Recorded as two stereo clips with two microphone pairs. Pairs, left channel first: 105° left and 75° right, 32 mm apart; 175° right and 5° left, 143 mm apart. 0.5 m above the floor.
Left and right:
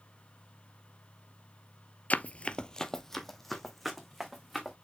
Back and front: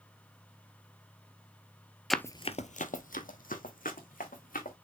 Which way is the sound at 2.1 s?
90° left.